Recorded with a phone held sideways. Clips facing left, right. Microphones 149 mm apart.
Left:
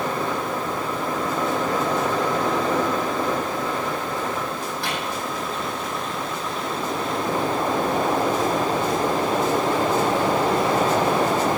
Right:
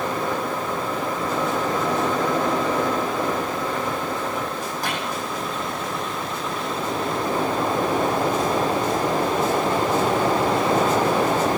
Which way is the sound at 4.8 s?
45° right (ahead or behind).